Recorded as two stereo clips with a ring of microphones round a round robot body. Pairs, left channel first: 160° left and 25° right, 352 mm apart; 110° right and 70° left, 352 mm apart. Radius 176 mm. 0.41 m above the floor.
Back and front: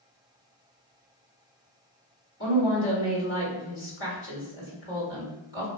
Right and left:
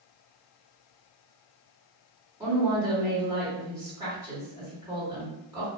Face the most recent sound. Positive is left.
turn(degrees=140)